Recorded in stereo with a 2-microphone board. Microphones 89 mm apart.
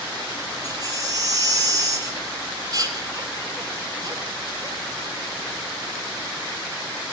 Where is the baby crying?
40° right (ahead or behind), 2.5 m.